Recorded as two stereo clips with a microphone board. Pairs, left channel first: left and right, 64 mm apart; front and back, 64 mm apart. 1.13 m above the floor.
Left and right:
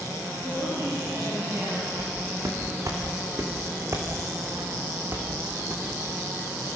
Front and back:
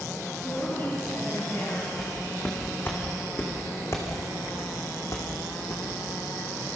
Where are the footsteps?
60° right, 6 m; by 5.8 s 30° right, 5 m.